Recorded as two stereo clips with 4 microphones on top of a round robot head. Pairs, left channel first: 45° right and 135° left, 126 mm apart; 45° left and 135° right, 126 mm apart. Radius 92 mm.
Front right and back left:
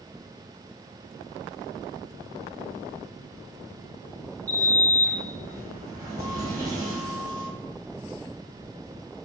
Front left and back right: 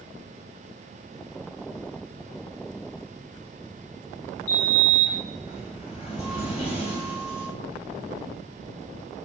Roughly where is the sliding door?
Left.